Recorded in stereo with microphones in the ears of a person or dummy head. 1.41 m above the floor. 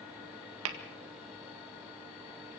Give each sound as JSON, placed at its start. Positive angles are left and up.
{"t": 0.7, "sound": "tapping", "side_deg": -75, "distance_m": 1.8}